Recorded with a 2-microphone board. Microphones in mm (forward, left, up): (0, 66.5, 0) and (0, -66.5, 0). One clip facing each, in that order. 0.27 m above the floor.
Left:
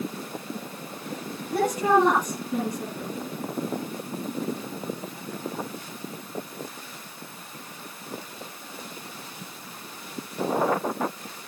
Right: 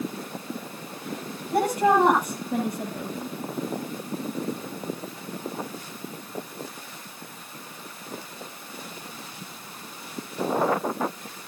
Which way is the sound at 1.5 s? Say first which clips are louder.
Right 1 dB; 70° right (ahead or behind).